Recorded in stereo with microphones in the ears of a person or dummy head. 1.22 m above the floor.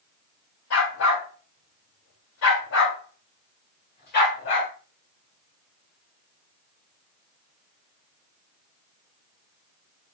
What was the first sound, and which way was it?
A dog barking, 75° left (ahead or behind).